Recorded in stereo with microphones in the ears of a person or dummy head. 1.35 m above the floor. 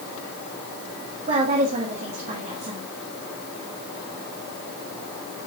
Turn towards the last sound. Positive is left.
turn(degrees=-40)  # may be behind; listen again after turning